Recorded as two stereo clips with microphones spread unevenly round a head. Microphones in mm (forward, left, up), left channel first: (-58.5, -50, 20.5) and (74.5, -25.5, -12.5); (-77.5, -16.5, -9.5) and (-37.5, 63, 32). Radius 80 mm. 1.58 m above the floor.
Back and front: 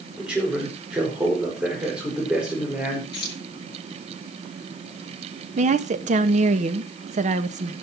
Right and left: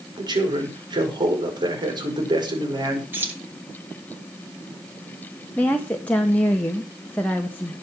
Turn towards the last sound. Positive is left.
turn(degrees=-30)